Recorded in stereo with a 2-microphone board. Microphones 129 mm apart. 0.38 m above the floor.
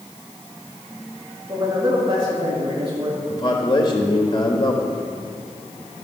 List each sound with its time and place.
1.5 s a man speaking: 30° right (ahead or behind), 6.5 m
3.3 s a man speaking: 40° left (ahead or behind), 1.3 m